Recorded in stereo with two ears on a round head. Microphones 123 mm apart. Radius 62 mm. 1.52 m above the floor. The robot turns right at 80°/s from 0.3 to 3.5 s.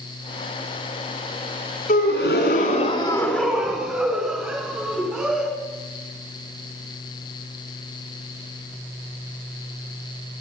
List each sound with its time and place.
1.9 s a gasp: 55° left, 4.5 m; by 5.5 s straight behind, 4.5 m